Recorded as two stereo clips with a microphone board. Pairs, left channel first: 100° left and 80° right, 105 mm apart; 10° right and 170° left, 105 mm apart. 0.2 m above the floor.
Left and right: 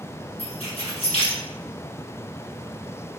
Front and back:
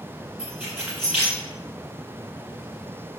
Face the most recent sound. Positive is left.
turn(degrees=95)